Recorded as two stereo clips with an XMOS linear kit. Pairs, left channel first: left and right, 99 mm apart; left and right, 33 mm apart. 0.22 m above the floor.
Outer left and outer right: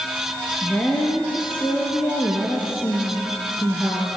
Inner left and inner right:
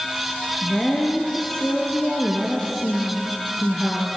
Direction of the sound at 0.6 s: 20° left (ahead or behind).